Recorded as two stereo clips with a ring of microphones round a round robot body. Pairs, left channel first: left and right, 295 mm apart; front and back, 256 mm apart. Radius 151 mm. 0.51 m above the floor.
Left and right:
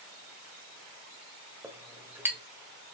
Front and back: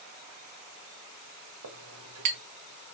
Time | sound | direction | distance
1.6 | a clink | 175° right | 1.4 m